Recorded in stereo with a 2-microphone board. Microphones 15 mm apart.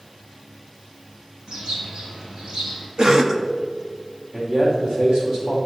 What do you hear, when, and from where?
1.5 s a bird: 65° right (ahead or behind), 2.5 m
3.0 s a cough: 50° right (ahead or behind), 1.0 m
4.3 s a man speaking: 55° right (ahead or behind), 3.5 m